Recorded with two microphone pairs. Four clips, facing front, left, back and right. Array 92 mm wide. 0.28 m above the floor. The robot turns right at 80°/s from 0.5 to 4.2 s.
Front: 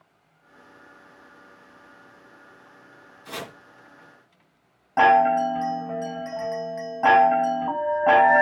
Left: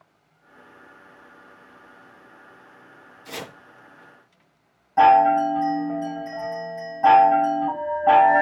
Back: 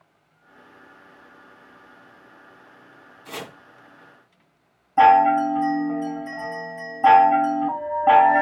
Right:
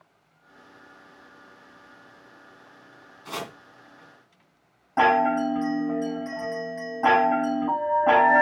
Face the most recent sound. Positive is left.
turn(degrees=-20)